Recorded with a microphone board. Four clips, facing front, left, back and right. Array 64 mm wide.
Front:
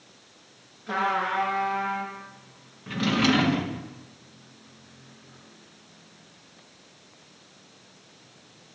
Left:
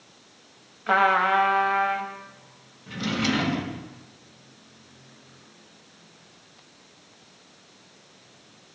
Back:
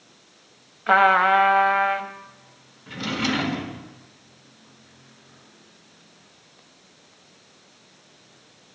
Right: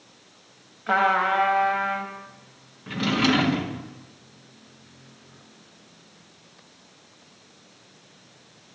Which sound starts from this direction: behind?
A trumpet, at 0.9 s.